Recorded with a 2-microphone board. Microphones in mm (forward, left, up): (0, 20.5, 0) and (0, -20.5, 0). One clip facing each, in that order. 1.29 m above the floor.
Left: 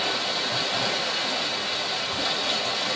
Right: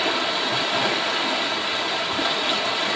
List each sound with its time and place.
0.0 s running water: 40° right (ahead or behind), 1.1 m